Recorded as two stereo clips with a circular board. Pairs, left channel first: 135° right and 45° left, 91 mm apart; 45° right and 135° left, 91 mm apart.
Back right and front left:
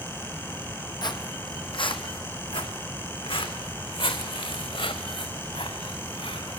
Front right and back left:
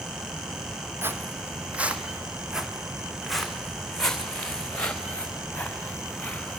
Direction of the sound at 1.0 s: 165° right.